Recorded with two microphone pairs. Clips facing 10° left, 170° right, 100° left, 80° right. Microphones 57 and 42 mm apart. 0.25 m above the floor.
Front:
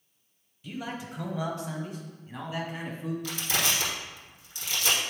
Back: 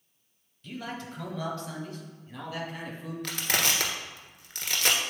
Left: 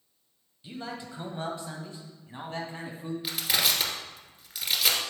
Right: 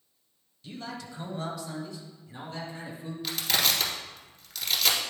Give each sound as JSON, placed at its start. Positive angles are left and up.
{"t": 0.6, "sound": "a man speaking", "azimuth_deg": 70, "distance_m": 1.1}
{"t": 3.2, "sound": "crushing", "azimuth_deg": 180, "distance_m": 1.5}